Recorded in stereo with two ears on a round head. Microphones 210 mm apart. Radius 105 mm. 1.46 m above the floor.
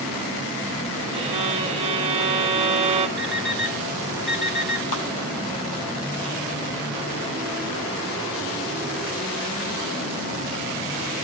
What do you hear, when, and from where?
1.1 s a violin: 25° right (ahead or behind), 1.8 m
3.2 s an alarm clock: centre (ahead or behind), 3 m
4.9 s a clap: 60° left (ahead or behind), 7.5 m